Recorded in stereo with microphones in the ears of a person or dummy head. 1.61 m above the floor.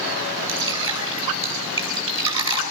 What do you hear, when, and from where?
0.5 s dripping: 25° right (ahead or behind), 10 m